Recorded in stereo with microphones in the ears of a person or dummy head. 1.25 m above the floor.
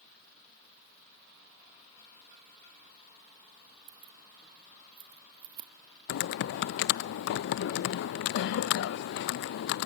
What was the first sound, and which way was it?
Keys jangling, 30° right (ahead or behind).